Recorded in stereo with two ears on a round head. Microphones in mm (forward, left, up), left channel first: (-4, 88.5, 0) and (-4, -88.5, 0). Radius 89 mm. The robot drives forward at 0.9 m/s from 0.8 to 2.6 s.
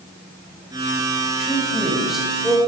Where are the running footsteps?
I don't hear running footsteps.